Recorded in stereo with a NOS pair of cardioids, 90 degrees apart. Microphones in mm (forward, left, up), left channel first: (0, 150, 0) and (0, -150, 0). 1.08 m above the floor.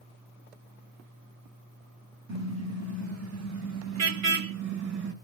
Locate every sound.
2.3 s a car horn: 65° right, 4.5 m